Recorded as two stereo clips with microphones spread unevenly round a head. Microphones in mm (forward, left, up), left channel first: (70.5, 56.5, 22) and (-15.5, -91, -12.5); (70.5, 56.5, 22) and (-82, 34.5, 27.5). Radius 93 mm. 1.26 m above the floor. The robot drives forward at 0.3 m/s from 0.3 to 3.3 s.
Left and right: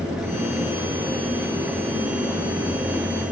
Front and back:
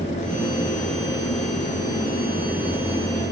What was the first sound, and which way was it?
Only background noise.